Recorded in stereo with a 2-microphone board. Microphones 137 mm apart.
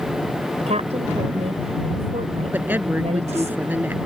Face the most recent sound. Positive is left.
turn(degrees=-15)  # may be behind; listen again after turning